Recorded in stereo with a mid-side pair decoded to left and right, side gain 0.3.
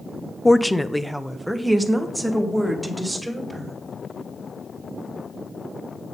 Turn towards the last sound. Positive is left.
turn(degrees=-20)